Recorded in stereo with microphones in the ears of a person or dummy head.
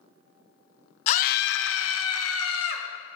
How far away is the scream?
About 0.6 m.